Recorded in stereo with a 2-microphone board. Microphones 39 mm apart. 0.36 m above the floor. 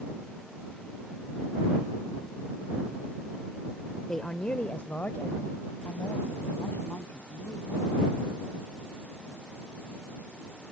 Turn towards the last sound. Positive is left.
turn(degrees=75)  # may be behind; listen again after turning